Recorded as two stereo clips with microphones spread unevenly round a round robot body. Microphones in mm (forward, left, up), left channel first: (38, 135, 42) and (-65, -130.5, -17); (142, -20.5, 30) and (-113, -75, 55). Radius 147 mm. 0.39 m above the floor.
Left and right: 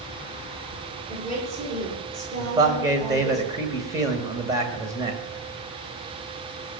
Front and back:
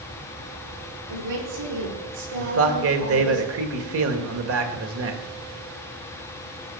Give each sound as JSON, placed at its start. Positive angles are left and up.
{"t": 1.1, "sound": "a woman speaking", "azimuth_deg": -175, "distance_m": 10.0}
{"t": 2.4, "sound": "a man speaking", "azimuth_deg": -175, "distance_m": 2.0}